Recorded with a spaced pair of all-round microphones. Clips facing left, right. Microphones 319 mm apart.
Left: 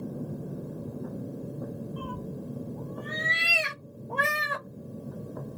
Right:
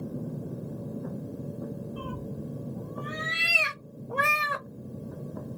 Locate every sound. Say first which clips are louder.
2.0 s a cat meowing: even; 10° right (ahead or behind), 1.1 m